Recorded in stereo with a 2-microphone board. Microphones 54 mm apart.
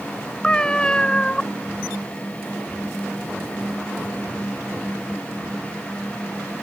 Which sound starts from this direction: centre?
A cat meowing, at 0.4 s.